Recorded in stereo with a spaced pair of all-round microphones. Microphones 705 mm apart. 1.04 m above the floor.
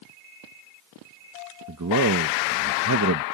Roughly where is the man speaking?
Right.